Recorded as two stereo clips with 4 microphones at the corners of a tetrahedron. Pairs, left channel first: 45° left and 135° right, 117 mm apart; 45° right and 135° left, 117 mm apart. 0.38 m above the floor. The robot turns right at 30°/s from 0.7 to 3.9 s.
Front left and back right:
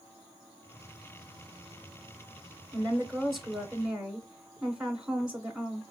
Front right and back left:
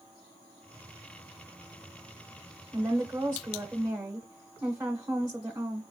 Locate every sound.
2.7 s a woman speaking: 115° left, 1.1 m; by 5.8 s 150° left, 1.1 m